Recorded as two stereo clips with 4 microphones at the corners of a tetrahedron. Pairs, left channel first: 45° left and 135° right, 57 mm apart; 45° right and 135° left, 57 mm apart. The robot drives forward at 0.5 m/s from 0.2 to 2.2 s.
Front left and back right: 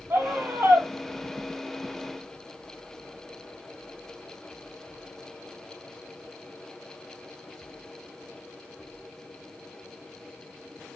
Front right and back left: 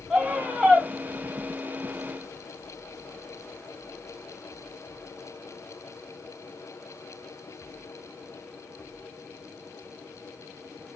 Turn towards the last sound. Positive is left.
turn(degrees=-165)